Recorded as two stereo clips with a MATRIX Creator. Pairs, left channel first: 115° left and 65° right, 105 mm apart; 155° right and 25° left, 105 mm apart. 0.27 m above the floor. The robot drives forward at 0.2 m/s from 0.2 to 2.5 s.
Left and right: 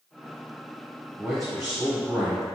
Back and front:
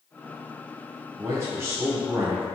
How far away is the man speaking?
About 1.3 m.